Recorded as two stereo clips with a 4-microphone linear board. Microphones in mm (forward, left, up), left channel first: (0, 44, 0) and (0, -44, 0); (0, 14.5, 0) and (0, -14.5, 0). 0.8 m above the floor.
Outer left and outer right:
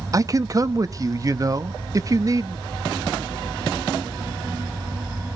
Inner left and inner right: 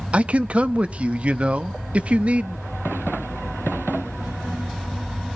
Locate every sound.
0.1 s a man speaking: 40° right (ahead or behind), 0.7 m